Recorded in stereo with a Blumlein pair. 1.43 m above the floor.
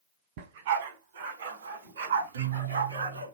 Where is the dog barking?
50° right, 3.5 m; by 3.3 s 75° right, 5.5 m.